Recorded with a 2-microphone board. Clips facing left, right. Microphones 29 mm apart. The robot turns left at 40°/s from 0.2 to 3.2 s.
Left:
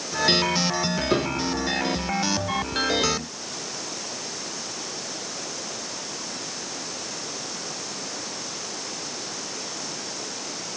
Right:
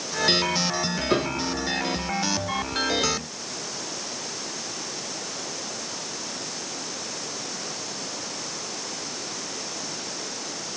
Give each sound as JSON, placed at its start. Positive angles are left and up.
{"t": 1.1, "sound": "a piano", "side_deg": -10}